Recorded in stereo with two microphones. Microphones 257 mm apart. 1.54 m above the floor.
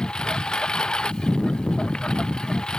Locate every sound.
0.0 s a lawn mower: 5° left (ahead or behind)